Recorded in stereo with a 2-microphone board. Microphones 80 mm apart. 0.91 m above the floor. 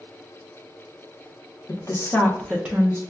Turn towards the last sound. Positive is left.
turn(degrees=-30)  # may be behind; listen again after turning